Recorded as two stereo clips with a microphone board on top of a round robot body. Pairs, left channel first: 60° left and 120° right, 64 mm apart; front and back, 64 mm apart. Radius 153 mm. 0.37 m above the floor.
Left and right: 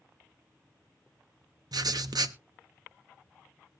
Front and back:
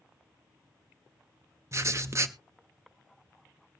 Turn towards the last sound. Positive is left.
turn(degrees=-135)